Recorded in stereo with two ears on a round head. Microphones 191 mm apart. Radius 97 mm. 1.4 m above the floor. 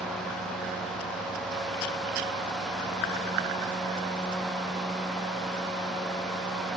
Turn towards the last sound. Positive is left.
No sound to turn to.